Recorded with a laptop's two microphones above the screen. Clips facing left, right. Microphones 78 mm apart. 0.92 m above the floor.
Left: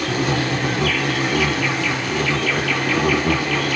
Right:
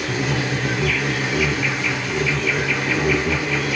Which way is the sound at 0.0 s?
65° left (ahead or behind).